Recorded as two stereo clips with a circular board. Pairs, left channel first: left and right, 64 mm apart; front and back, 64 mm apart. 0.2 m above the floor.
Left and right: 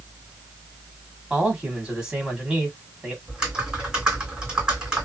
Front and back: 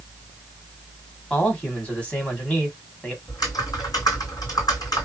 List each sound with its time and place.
1.3 s a man speaking: 35° right, 1.5 m
3.3 s typing on a keyboard: 15° right, 1.8 m